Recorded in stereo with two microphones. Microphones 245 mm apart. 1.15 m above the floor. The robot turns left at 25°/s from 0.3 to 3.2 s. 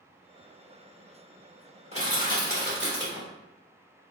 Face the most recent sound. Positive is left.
turn(degrees=-55)  # may be behind; listen again after turning